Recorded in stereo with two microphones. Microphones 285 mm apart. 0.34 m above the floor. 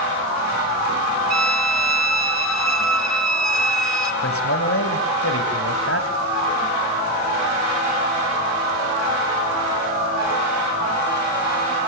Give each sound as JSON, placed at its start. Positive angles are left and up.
{"t": 1.3, "sound": "a violin", "side_deg": 70, "distance_m": 2.0}
{"t": 4.2, "sound": "a man speaking", "side_deg": 50, "distance_m": 2.5}